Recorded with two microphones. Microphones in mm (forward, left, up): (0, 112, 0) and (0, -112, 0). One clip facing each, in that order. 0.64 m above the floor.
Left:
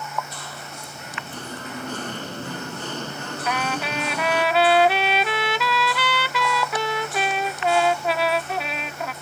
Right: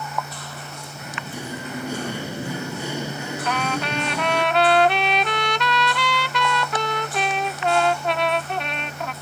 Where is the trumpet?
5° left (ahead or behind).